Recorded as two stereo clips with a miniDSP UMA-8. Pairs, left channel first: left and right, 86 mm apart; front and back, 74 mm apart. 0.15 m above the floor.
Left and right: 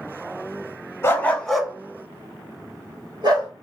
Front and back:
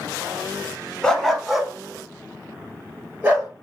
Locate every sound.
1.0 s a dog barking: 70° left, 0.5 m; by 3.5 s 115° right, 1.3 m